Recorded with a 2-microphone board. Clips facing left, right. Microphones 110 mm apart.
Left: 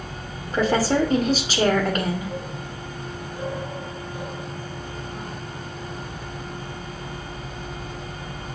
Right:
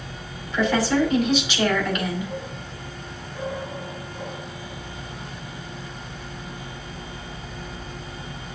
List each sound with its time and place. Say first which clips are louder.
0.5 s a woman speaking: left 1 dB; 40° left (ahead or behind), 2.5 m